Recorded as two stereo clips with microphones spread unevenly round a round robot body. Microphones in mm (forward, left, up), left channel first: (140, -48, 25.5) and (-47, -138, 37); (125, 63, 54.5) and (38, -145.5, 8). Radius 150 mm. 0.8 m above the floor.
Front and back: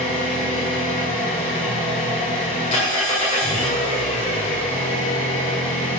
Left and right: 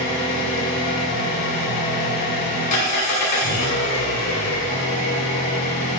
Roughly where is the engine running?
Left.